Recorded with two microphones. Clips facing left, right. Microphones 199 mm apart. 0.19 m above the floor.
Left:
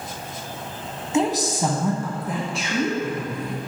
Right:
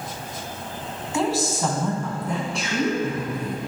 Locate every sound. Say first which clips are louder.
1.1 s a woman speaking: left 2 dB; 20° left (ahead or behind), 1.2 m; by 3.6 s 5° right (ahead or behind), 2.5 m